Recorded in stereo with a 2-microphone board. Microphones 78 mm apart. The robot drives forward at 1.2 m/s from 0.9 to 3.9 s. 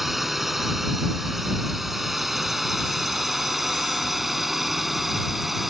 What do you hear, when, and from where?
0.0 s a drone: 5° right (ahead or behind)